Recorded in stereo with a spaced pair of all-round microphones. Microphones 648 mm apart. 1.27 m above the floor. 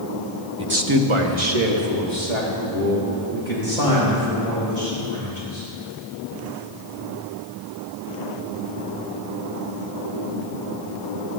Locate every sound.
0.6 s a man speaking: 5° right (ahead or behind), 0.8 m; by 5.7 s 90° right, 7 m